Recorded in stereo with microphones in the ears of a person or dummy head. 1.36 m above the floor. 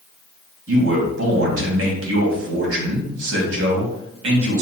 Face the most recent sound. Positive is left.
turn(degrees=-75)  # may be behind; listen again after turning